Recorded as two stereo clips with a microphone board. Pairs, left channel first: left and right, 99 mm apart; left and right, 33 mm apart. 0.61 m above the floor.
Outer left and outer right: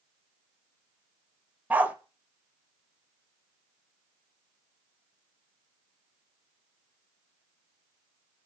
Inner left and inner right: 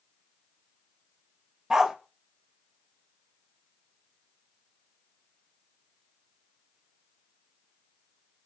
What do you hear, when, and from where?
1.7 s a dog barking: 15° right (ahead or behind), 0.6 m